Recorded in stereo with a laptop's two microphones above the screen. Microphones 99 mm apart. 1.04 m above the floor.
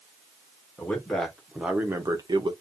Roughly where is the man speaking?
Centre.